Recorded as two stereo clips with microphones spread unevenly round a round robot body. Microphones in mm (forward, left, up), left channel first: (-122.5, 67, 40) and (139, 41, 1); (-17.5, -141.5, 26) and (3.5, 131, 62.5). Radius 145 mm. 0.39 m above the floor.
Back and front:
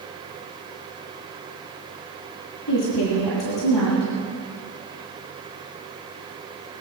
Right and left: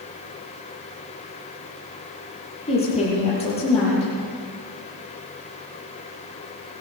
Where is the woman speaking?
160° right, 9 m.